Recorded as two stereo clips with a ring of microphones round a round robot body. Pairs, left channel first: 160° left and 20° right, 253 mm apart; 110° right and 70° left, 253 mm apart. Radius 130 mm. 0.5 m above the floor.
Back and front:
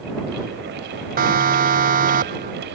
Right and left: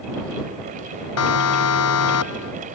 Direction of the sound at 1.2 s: 80° right.